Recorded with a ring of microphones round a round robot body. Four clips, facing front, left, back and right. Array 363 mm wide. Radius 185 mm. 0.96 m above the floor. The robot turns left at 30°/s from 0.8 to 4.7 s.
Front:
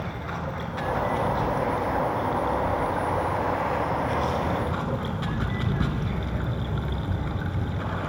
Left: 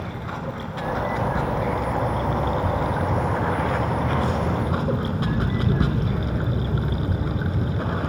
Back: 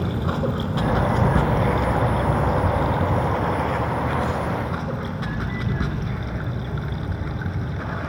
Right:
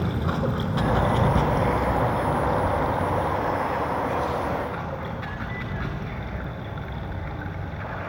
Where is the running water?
150° right, 2.0 m; by 8.1 s 95° left, 2.0 m.